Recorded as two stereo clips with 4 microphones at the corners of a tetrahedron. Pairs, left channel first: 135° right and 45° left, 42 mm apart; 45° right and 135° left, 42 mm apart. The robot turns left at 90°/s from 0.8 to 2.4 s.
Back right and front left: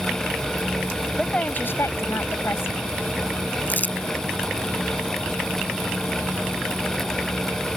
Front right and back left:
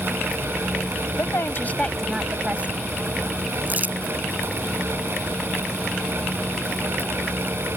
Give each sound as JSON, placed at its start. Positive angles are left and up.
{"t": 1.2, "sound": "a woman speaking", "azimuth_deg": -55}
{"t": 3.7, "sound": "crumpling", "azimuth_deg": 180}